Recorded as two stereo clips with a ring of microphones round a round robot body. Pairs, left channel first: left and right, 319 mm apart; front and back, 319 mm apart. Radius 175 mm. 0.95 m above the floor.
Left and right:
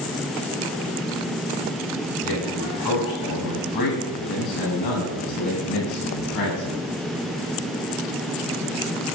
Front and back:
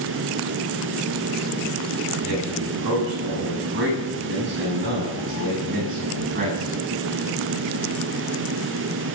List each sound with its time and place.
2.2 s a man speaking: 125° left, 9 m; by 6.9 s 110° left, 9.5 m